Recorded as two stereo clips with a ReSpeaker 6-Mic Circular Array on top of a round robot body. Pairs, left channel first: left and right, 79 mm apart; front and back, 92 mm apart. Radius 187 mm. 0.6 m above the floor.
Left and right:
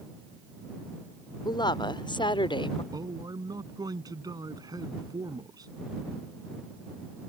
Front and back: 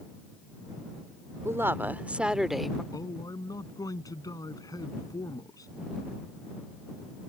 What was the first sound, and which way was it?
A woman speaking, 115° left.